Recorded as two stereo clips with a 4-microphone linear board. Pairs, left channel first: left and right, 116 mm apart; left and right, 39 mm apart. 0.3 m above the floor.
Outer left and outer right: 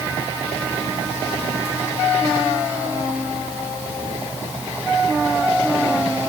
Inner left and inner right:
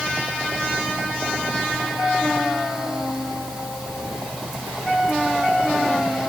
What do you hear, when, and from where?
Only background noise.